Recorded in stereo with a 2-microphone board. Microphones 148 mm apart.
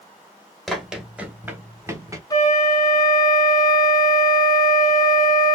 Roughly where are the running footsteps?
Centre.